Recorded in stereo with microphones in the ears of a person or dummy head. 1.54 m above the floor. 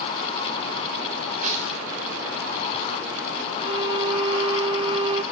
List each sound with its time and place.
1.4 s tearing paper: 40° right (ahead or behind), 9.5 m
3.6 s a violin: 25° right (ahead or behind), 0.7 m